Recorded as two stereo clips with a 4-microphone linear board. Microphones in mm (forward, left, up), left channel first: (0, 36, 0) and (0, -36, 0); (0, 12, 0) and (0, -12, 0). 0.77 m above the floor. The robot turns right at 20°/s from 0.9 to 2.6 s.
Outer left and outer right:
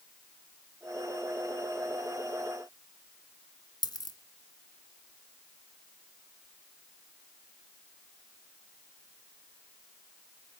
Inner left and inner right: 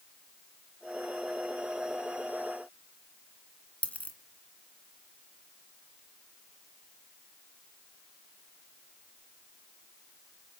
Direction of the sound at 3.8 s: 70° left (ahead or behind).